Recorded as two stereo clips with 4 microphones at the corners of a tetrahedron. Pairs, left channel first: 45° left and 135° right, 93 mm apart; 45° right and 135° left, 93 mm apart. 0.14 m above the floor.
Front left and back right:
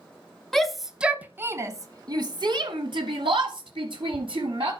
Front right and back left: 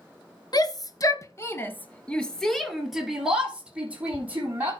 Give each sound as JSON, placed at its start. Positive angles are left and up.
{"t": 0.5, "sound": "a shout", "azimuth_deg": -40, "distance_m": 1.4}